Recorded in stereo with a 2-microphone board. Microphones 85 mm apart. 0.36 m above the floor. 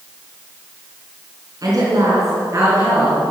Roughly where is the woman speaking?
Right.